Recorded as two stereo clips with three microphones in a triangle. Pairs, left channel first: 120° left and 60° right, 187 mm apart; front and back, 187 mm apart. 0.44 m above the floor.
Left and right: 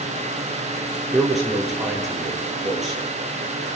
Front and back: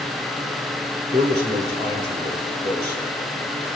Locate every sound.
1.1 s a man speaking: 150° right, 8 m